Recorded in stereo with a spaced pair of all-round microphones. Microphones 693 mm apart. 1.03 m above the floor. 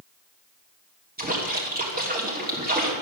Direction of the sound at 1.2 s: 15° right (ahead or behind).